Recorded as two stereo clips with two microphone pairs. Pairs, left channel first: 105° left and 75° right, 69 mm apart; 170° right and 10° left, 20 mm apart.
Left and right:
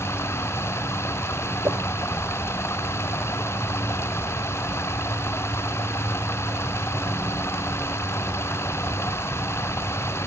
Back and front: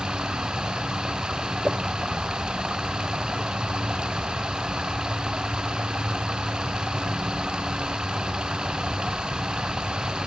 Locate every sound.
0.0 s running water: 50° left
1.6 s a whoosh: 30° right